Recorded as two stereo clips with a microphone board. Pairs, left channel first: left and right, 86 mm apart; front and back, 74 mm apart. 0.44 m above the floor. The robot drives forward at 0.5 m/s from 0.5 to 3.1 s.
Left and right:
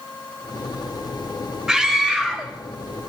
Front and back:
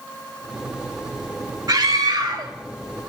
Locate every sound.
1.7 s a scream: 170° right, 1.4 m